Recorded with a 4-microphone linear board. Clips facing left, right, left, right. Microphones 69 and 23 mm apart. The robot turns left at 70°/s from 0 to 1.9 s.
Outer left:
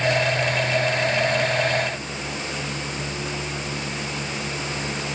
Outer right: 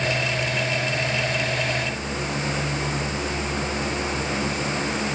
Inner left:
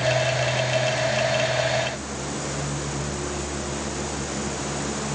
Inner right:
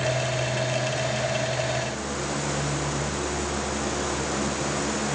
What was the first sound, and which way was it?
Only background noise.